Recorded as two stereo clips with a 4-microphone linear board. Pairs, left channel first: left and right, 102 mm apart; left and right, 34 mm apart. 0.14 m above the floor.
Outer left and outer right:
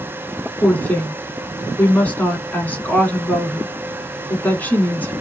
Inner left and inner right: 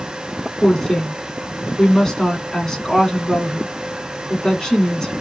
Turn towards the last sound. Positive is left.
turn(degrees=15)  # may be behind; listen again after turning